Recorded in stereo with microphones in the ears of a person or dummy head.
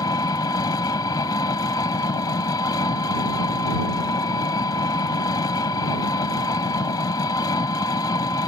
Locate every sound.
0.0 s an engine running: 20° left (ahead or behind)